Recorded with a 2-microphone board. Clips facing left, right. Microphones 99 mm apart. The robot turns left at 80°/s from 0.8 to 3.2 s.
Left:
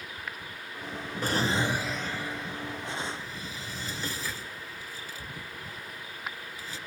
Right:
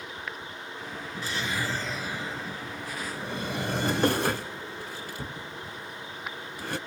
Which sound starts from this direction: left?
A drawer, at 1.2 s.